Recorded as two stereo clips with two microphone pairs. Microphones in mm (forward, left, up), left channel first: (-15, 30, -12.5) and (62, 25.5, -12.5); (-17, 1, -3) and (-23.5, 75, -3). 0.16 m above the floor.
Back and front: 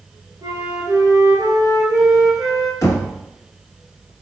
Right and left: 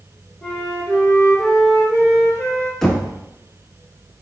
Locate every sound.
0.4 s a flute: 5° left, 1.7 m
2.8 s knocking: 175° right, 1.0 m